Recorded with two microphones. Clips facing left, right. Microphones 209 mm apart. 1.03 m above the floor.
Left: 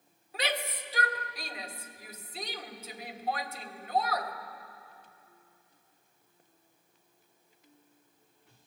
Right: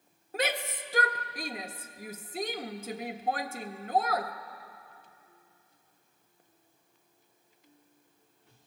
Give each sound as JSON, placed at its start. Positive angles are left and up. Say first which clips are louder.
{"t": 0.3, "sound": "a shout", "louder": "right 3 dB", "side_deg": -50, "distance_m": 1.4}